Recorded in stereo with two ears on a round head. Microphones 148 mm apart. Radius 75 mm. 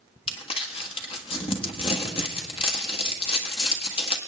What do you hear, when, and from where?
0.3 s crumpling: 35° left (ahead or behind), 1.4 m